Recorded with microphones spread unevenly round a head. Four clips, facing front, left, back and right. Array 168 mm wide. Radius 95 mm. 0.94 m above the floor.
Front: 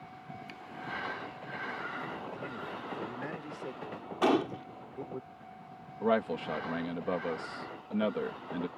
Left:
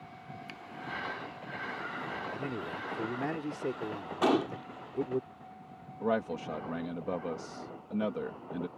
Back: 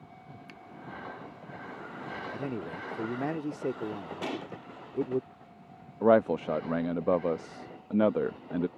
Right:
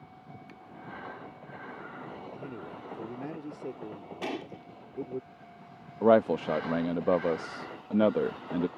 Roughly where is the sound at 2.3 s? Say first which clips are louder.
Left 4 dB, back 4 dB; behind.